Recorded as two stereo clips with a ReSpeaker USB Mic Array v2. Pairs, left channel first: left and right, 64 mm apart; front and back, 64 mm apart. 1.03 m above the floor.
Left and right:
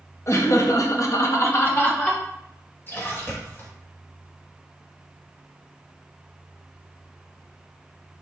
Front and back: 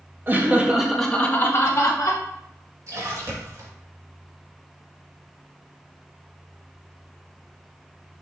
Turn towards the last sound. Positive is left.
turn(degrees=145)